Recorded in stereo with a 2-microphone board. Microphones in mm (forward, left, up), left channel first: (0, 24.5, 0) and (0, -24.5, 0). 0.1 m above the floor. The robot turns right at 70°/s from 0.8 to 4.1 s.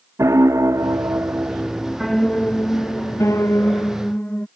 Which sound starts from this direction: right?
A piano, at 0.2 s.